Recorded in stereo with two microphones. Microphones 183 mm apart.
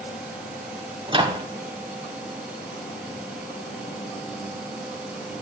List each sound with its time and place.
1.1 s a microwave: 25° right (ahead or behind), 1.0 m